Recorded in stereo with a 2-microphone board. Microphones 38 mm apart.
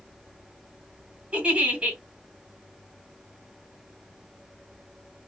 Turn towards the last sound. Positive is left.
turn(degrees=-35)  # may be behind; listen again after turning